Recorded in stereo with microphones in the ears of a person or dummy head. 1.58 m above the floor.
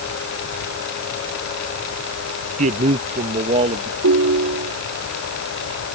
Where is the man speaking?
40° right (ahead or behind); by 3.9 s 35° right (ahead or behind).